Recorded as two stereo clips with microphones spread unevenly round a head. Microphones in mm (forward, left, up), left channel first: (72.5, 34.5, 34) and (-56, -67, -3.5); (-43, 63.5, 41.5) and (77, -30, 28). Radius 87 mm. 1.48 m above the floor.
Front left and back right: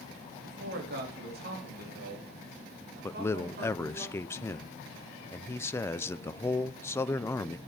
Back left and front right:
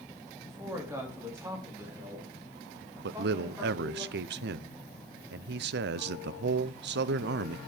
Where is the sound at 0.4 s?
115° right, 2 m; by 4.0 s 110° right, 4.5 m.